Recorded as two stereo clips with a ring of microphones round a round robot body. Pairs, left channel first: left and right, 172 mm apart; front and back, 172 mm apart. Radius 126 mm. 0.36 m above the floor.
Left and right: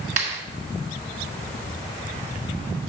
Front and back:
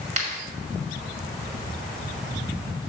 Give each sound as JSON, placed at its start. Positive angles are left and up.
{"t": 0.2, "sound": "a clap", "azimuth_deg": -135, "distance_m": 1.9}